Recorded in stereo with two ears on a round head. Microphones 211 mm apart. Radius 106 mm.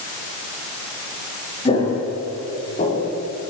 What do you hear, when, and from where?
1.6 s footsteps: 25° left (ahead or behind), 7 m; by 3.1 s 35° left (ahead or behind), 6 m